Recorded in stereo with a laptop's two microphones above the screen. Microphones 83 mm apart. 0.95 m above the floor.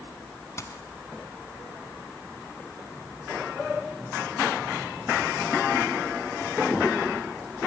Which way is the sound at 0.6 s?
35° left (ahead or behind).